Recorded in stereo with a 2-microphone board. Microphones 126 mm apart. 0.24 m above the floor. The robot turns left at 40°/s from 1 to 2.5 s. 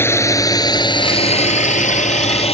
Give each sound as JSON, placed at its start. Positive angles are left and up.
{"t": 0.0, "sound": "a drone", "side_deg": 20}